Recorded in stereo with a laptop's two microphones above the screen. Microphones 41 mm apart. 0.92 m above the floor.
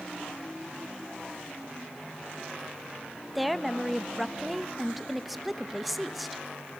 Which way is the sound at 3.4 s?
Centre (ahead or behind).